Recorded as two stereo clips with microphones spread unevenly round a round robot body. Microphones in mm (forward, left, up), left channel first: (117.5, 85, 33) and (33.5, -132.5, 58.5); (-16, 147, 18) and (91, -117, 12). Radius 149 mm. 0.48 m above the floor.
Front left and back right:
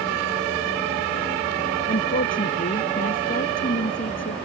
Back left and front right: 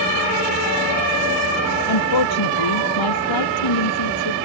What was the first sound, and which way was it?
A woman speaking, 135° left.